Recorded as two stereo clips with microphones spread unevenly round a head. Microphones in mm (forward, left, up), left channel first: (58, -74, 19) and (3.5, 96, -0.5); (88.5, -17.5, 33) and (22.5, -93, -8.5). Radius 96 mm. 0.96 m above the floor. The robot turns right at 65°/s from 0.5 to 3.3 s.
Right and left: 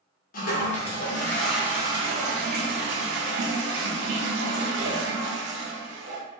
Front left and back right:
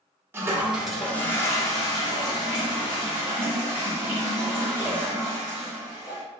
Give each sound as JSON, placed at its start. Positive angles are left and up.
{"t": 0.3, "sound": "a toilet flushing", "azimuth_deg": -50, "distance_m": 0.9}